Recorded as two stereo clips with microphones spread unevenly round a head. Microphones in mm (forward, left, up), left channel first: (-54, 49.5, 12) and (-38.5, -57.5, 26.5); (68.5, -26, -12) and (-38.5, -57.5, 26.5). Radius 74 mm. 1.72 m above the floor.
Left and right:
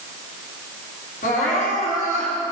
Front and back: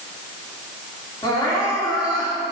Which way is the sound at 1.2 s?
85° left.